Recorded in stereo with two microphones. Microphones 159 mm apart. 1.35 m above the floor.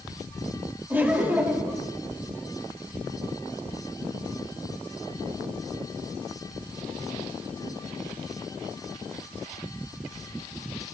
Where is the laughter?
15° right (ahead or behind), 2.5 m.